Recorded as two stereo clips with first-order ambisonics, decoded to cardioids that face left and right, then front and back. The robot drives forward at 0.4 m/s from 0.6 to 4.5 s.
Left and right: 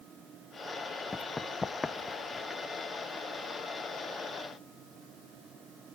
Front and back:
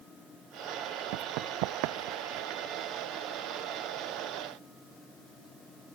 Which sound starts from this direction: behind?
Running footsteps, at 1.1 s.